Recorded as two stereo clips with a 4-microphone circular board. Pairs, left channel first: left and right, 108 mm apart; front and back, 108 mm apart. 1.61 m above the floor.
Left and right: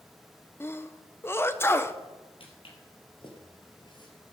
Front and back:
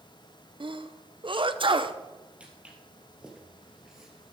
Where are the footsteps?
105° left, 3 m; by 4.3 s 95° left, 2 m.